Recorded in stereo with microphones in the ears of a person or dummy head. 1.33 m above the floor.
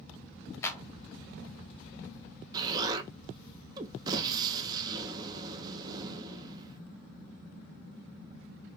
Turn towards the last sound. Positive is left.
turn(degrees=-20)  # may be behind; listen again after turning